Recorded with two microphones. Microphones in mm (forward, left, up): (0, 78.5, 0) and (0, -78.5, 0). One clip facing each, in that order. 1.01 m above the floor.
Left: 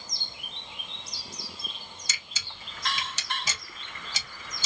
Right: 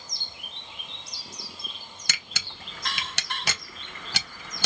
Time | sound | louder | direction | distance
2.1 | a camera shutter | right 4 dB | 70° right (ahead or behind) | 0.7 m